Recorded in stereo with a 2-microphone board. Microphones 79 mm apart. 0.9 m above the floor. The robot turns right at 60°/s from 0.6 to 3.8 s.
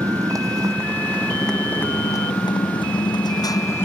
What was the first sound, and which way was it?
A motorcycle, 45° right.